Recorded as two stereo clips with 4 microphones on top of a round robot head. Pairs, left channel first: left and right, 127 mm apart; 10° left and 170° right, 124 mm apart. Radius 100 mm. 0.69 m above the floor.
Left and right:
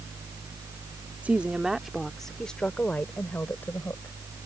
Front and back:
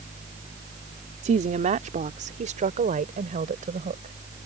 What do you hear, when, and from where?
1.2 s a woman speaking: 170° right; by 4.2 s 170° left